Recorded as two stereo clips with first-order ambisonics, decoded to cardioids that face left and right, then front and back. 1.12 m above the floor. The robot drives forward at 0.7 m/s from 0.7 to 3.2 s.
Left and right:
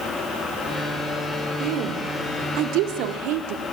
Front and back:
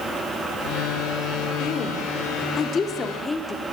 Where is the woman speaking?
55° right, 3 m; by 3.6 s 75° right, 2.5 m.